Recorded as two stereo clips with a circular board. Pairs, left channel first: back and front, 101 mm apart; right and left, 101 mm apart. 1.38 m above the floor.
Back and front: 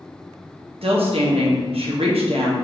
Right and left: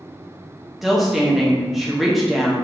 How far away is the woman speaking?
About 0.9 m.